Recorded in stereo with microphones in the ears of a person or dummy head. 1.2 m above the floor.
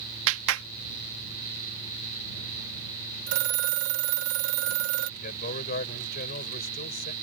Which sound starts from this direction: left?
A man speaking, at 5.2 s.